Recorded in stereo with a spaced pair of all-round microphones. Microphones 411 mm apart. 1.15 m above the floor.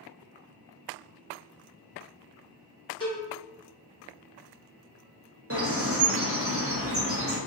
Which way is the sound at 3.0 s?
10° left (ahead or behind).